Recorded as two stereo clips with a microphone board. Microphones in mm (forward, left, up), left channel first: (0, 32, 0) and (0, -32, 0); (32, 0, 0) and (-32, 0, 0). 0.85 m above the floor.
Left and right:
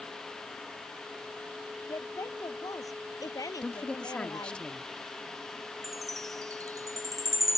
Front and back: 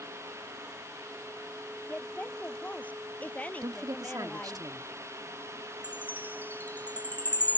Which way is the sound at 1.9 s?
70° left.